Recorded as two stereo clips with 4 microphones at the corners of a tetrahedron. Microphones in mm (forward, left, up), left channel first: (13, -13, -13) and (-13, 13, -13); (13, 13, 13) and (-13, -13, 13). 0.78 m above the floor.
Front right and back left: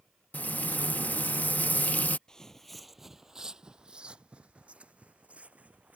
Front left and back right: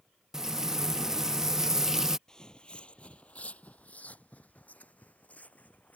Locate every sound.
0.3 s frying: 65° right
2.3 s footsteps: straight ahead; by 6.0 s 90° left